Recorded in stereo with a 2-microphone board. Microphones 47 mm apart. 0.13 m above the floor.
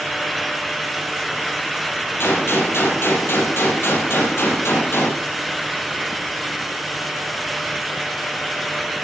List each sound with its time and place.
2.2 s a gunshot: 60° left (ahead or behind), 4 m